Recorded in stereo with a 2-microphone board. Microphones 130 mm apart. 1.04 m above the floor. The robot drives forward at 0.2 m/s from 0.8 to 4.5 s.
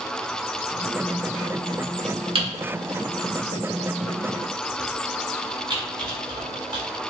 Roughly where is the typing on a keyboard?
Right.